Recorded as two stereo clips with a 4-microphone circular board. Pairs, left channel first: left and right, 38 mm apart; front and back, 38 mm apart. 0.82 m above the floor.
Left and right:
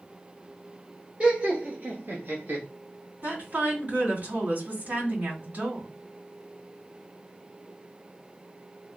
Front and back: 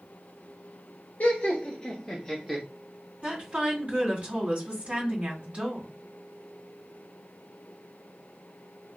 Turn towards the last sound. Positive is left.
turn(degrees=-125)